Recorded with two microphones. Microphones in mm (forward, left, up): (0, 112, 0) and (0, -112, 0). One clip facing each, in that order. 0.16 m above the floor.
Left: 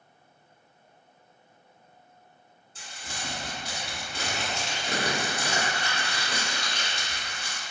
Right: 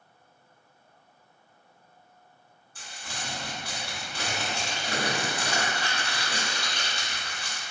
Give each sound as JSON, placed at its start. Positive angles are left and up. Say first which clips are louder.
{"t": 2.8, "sound": "crumpling", "louder": "even", "side_deg": 25, "distance_m": 1.7}